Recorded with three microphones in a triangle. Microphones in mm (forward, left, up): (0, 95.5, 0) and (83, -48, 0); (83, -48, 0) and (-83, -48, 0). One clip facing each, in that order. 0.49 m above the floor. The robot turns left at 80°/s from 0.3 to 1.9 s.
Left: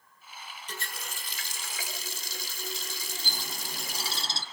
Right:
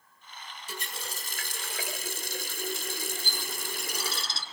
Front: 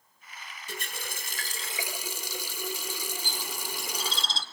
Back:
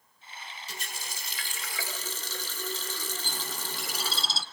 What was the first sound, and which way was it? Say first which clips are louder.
A running tap: right 2 dB, front 7 dB; 20° left.